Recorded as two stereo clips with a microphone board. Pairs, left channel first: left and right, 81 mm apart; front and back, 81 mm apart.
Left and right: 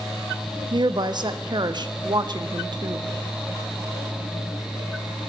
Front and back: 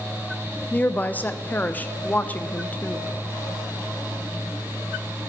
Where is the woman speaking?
70° right, 0.5 m.